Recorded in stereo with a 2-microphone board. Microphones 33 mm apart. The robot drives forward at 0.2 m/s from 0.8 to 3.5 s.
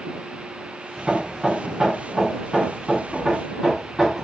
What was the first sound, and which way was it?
Hammering, 25° right (ahead or behind).